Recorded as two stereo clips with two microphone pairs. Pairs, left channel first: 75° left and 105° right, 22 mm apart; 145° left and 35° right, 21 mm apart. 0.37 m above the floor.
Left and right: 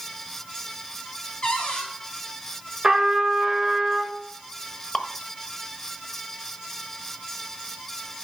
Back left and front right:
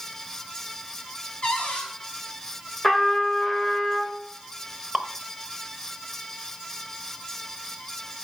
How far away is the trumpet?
About 1.7 m.